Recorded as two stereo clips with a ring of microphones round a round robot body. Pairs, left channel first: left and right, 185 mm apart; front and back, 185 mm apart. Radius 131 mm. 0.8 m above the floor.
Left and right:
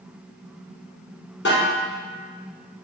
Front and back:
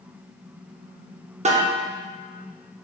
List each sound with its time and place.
1.4 s a snare drum: 125° left, 0.6 m